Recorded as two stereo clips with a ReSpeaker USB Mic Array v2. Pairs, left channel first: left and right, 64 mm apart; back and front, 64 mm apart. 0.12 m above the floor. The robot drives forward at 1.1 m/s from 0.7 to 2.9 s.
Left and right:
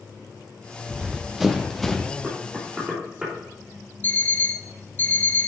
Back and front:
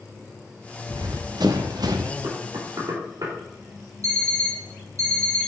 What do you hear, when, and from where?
0.9 s running footsteps: 10° right, 1.6 m; by 2.1 s 15° left, 1.1 m
2.2 s knocking: 10° right, 4.5 m; by 3.3 s 15° right, 4 m
4.0 s an alarm clock: 35° left, 2.5 m